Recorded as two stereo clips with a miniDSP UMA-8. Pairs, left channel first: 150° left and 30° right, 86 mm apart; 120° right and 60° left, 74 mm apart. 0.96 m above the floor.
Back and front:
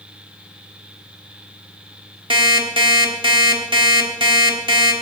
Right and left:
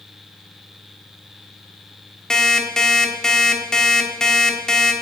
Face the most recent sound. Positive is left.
turn(degrees=-40)